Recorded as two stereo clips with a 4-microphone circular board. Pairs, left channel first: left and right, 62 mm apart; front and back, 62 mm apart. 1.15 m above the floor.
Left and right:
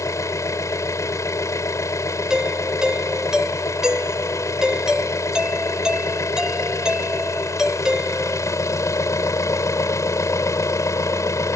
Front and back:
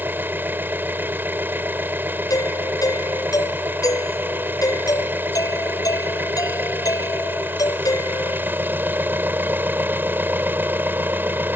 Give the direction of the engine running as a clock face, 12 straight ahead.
8 o'clock.